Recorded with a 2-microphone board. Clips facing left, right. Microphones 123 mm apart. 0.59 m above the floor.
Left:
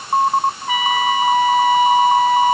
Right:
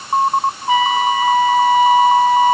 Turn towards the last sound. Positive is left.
turn(degrees=-35)  # may be behind; listen again after turning